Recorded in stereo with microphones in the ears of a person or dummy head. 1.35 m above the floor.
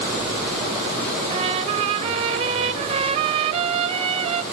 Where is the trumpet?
35° right (ahead or behind), 1.2 m.